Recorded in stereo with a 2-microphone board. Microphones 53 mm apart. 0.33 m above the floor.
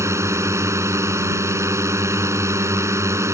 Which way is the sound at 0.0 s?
70° right (ahead or behind).